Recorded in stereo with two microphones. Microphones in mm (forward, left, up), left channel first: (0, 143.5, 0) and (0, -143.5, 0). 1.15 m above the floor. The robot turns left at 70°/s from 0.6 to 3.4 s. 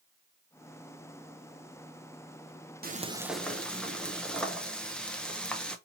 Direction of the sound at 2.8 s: 145° right.